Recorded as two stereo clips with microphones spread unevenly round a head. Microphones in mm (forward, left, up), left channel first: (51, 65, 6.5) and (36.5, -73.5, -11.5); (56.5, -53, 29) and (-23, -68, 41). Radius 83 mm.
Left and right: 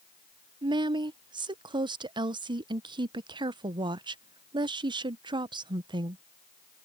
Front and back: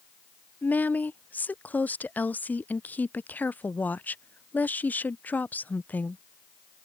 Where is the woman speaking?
50° right.